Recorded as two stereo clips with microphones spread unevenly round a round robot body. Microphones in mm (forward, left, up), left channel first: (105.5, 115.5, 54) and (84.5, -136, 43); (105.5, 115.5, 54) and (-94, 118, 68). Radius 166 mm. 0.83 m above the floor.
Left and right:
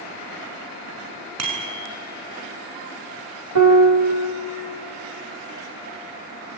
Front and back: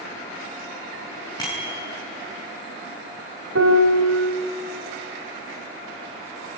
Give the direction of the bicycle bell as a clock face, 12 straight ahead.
3 o'clock.